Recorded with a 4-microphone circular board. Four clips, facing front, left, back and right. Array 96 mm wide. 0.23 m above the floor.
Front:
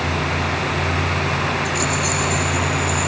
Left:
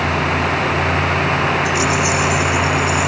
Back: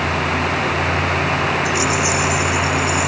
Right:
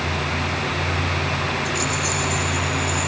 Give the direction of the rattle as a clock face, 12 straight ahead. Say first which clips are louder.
Left 7 dB, back 3 dB; 10 o'clock.